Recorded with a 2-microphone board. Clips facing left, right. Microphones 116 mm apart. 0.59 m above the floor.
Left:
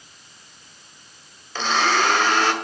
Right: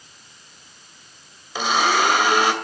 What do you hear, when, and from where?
1.6 s a blender: 10° right (ahead or behind), 1.9 m